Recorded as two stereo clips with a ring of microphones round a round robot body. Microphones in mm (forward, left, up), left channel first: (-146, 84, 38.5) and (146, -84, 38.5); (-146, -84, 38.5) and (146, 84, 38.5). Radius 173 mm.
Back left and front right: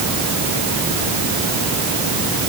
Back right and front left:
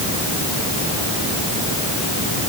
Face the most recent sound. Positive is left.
No sound to turn to.